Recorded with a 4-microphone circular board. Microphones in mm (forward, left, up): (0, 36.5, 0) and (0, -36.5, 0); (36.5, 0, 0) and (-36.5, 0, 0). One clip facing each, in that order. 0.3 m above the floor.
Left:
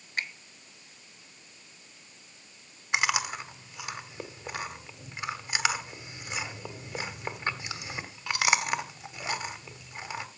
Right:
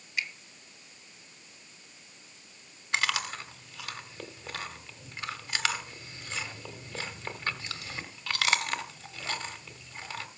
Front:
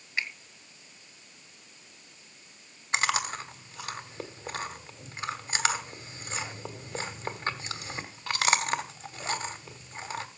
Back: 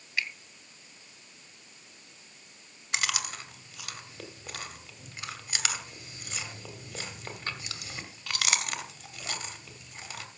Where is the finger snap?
60° left, 2 m.